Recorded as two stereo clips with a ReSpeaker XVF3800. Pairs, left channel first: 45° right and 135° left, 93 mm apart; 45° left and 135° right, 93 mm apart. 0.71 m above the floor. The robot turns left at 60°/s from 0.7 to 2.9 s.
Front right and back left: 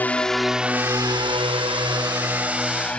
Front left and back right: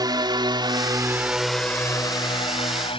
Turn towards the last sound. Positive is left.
turn(degrees=30)